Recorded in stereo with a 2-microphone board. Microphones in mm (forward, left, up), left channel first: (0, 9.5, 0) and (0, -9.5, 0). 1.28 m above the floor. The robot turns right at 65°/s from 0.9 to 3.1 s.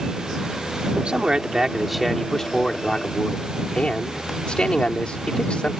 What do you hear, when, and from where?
1.0 s a man speaking: 60° right; by 5.8 s 75° left